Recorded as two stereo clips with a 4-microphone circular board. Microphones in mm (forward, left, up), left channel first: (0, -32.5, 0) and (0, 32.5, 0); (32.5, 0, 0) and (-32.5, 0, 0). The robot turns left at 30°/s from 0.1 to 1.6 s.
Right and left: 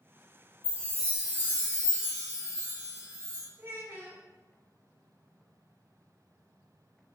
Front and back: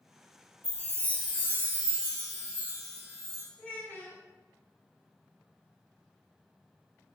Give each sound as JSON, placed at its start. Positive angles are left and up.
{"t": 0.6, "sound": "a chime", "azimuth_deg": 50, "distance_m": 1.7}
{"t": 3.6, "sound": "a child speaking", "azimuth_deg": 55, "distance_m": 0.9}